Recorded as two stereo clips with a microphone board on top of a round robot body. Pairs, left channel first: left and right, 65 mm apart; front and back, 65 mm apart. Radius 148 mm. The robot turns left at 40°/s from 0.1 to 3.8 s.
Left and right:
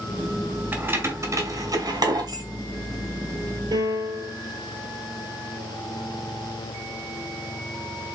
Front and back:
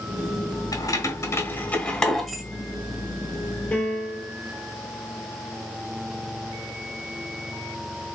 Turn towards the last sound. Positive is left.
turn(degrees=-75)